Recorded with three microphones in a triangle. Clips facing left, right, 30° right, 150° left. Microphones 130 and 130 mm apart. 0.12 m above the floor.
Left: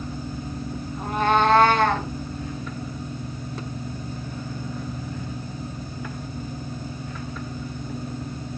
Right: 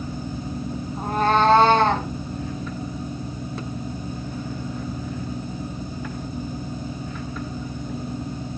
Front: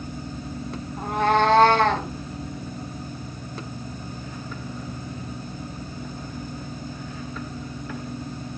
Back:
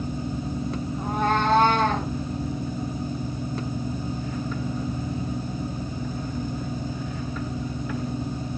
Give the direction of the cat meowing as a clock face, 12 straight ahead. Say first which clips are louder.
Right 1 dB, front 4 dB; 1 o'clock.